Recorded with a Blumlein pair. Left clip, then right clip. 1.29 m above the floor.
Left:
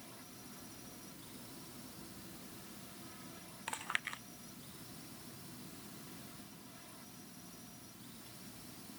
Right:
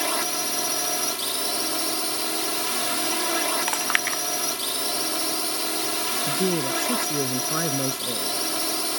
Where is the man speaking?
45° right.